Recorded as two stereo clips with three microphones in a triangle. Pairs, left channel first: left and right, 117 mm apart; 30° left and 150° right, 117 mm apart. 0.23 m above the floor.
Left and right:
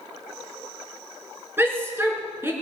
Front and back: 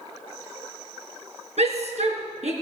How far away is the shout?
About 3.5 m.